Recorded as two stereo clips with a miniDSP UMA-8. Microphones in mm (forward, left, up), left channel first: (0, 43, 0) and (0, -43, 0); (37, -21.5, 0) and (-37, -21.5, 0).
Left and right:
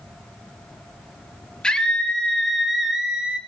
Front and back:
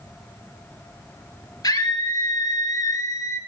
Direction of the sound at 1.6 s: 10° left.